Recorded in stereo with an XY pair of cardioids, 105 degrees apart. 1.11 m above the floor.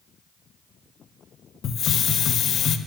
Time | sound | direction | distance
1.6 | a hiss | 60° left | 0.8 m